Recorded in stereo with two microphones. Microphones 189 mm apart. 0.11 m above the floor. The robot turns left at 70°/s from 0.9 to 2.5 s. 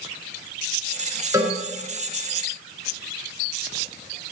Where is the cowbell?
15° right (ahead or behind), 1.3 m.